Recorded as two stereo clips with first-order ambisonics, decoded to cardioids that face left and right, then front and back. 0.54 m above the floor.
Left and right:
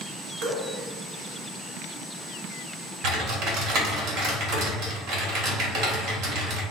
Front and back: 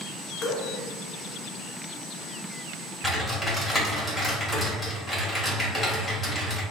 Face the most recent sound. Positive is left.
turn(degrees=-80)